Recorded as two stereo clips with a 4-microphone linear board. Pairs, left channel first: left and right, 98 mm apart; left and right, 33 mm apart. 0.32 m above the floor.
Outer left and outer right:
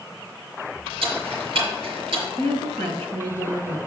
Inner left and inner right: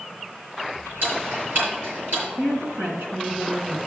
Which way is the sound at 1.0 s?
70° right (ahead or behind).